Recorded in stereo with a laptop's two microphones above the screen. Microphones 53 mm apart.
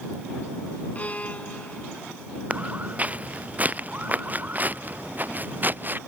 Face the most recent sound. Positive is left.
turn(degrees=-40)  # may be behind; listen again after turning